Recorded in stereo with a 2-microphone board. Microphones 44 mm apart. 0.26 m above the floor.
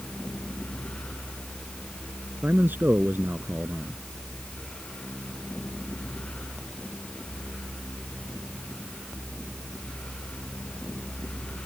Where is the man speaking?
45° right (ahead or behind).